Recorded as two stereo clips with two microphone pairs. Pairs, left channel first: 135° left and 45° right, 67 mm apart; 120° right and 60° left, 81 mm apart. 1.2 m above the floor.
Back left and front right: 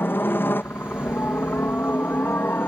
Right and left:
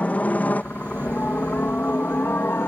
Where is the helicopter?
Straight behind; by 2.7 s 175° right.